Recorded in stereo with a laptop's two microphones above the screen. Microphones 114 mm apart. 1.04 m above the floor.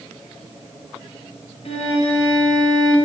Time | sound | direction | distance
1.6 | a violin | 65° left (ahead or behind) | 1.8 m